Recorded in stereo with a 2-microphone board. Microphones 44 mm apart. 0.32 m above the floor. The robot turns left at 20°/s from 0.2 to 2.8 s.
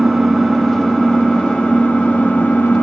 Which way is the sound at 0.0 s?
Straight behind.